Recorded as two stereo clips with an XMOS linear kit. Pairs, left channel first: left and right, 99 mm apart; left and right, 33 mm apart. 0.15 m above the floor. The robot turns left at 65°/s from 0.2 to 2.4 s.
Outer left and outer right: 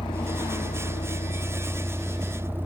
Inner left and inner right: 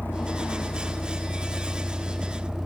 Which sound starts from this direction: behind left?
A vehicle, at 0.0 s.